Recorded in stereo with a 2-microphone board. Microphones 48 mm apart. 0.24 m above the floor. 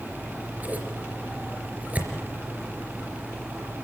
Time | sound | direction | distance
0.1 | scissors | 35° right (ahead or behind) | 3 m